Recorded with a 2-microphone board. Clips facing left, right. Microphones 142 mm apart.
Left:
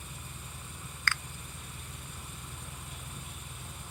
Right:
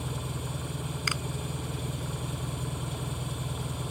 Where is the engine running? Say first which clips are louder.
Right 12 dB; 70° right (ahead or behind).